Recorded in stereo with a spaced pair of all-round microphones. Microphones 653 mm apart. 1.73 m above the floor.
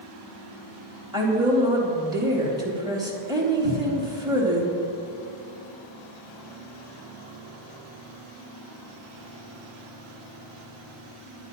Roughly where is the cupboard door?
Right.